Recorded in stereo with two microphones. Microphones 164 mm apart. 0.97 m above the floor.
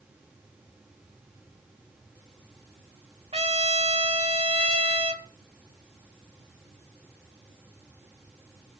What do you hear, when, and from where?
3.3 s a trumpet: 40° right (ahead or behind), 1.3 m